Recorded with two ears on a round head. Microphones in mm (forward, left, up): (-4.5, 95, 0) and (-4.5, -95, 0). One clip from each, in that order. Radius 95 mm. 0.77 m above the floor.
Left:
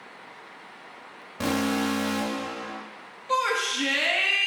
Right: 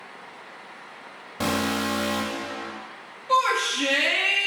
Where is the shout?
10° left (ahead or behind), 0.8 m.